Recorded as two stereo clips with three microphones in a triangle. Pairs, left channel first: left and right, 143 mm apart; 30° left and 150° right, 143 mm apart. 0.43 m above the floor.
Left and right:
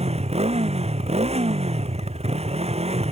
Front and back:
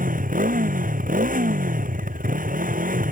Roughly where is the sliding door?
No sliding door in this recording.